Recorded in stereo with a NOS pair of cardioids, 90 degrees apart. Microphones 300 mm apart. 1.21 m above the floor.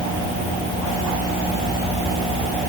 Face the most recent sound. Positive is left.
No sound to turn to.